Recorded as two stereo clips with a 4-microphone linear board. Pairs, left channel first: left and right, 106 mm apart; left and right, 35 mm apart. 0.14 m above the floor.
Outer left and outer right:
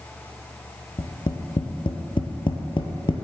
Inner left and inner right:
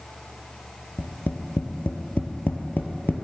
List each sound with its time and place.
1.0 s tapping: 55° left (ahead or behind), 1.1 m